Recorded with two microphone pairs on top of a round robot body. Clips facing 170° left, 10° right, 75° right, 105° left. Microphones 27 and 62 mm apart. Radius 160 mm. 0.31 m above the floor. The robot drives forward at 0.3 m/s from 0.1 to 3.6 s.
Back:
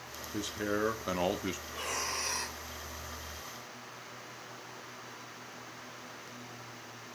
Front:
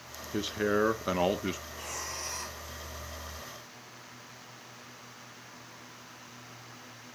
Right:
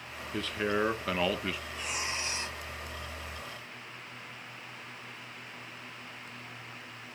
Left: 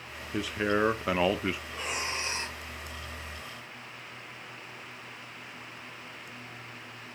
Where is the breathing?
145° left, 2.5 m; by 2.6 s 150° left, 2.5 m.